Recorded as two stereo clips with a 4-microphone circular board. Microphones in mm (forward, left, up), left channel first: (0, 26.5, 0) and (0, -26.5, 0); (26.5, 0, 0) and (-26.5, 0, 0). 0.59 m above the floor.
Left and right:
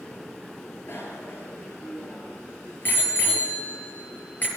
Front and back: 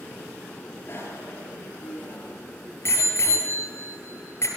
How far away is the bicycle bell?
About 9 m.